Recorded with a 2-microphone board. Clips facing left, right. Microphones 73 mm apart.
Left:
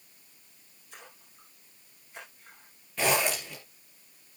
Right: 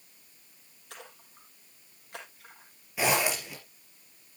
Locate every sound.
0.9 s a splash: 80° right, 5.5 m
3.0 s a zipper: 10° right (ahead or behind), 5.5 m